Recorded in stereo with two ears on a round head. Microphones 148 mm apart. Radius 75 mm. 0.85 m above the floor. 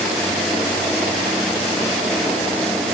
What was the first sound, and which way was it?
Only background noise.